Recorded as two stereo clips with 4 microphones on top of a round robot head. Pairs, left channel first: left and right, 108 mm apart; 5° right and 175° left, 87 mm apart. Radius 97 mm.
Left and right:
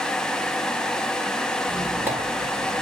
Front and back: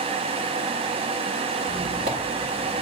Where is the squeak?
160° right, 2 m.